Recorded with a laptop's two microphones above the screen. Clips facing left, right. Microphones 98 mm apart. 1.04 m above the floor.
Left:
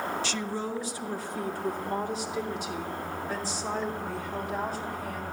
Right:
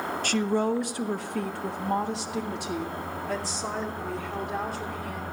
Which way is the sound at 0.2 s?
50° right (ahead or behind).